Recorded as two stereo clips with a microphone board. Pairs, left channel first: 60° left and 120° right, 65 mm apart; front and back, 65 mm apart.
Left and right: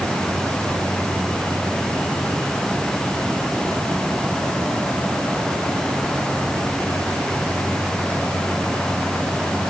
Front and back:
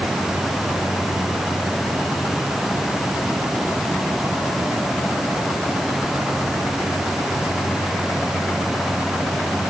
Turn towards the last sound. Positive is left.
No sound to turn to.